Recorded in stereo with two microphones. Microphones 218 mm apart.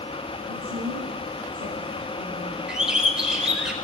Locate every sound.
0.5 s a woman speaking: 80° right, 8 m; by 2.6 s 75° right (ahead or behind), 10.5 m
2.7 s a bird: 5° right (ahead or behind), 1.2 m